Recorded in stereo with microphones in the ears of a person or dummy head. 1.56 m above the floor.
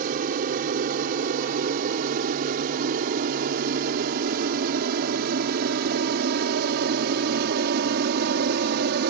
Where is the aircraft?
50° right (ahead or behind); by 9.1 s 60° right (ahead or behind).